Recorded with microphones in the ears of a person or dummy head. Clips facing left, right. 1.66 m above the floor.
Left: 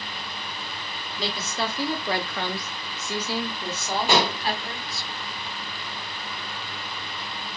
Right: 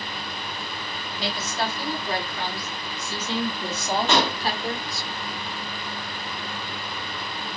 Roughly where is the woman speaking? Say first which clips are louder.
Right 1 dB; left.